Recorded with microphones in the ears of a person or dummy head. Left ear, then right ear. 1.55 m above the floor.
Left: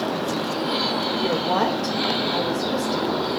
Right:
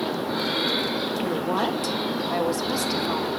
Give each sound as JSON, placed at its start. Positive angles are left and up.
{"t": 1.2, "sound": "a woman speaking", "side_deg": 20, "distance_m": 1.8}